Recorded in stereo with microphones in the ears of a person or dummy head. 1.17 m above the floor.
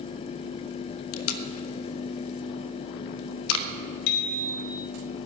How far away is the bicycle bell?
About 3.5 m.